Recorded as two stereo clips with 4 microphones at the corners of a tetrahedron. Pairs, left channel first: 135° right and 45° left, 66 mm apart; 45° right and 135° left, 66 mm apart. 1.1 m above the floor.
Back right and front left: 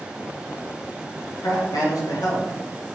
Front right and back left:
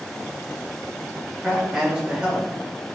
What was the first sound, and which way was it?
A man speaking, 150° right.